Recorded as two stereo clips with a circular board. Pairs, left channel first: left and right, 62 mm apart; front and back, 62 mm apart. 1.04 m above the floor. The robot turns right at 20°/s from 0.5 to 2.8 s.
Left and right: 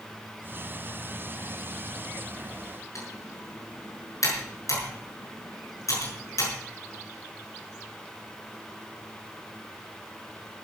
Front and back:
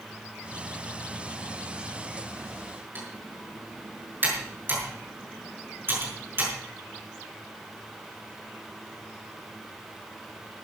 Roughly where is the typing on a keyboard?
Behind left.